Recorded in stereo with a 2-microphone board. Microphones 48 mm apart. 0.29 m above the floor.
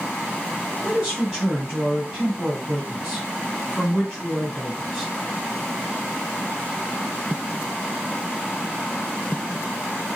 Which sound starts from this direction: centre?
A woman speaking, at 0.8 s.